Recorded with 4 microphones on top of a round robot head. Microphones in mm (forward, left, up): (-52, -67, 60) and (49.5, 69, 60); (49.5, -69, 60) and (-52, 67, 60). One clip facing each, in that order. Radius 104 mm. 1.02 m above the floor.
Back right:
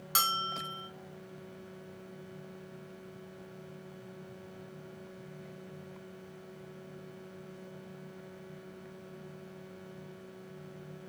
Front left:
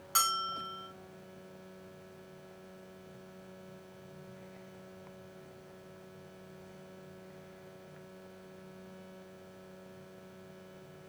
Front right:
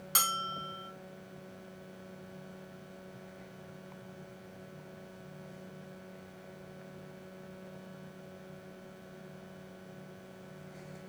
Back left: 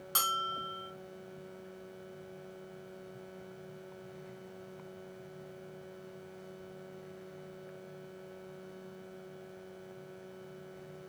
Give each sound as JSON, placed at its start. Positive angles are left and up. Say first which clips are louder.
{"t": 0.1, "sound": "a bell", "louder": "back right 1 dB, back left 1 dB", "azimuth_deg": -125, "distance_m": 0.6}